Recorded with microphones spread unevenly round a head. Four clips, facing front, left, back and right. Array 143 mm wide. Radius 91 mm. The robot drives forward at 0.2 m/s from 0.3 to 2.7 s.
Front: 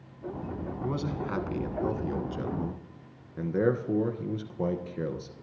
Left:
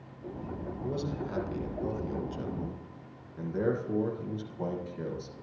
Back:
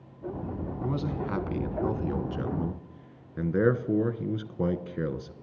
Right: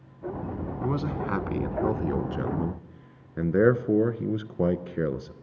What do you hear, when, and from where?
0.8 s a man speaking: 80° right, 1.2 m; by 5.3 s 100° right, 1.1 m